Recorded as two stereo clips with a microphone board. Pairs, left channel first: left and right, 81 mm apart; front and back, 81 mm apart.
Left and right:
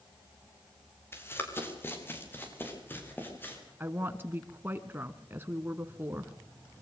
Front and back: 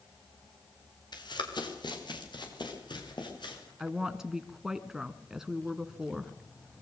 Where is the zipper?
I don't hear a zipper.